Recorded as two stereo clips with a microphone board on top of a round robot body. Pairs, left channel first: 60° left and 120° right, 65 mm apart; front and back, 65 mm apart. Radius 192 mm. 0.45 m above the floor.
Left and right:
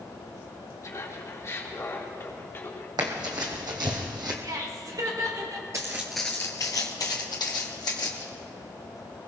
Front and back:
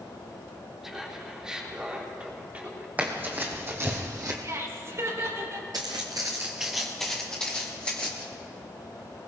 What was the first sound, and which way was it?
Laughter, 95° left.